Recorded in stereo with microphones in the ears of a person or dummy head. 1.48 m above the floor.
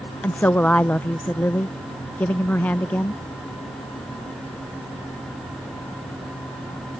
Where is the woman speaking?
10° left (ahead or behind).